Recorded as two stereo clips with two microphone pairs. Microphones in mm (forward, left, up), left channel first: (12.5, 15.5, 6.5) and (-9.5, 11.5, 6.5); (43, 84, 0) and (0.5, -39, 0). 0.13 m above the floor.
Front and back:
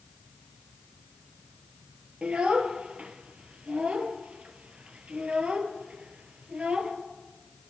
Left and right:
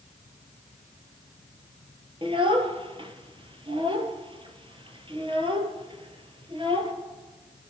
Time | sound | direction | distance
2.2 | a child speaking | 150° right | 1.9 m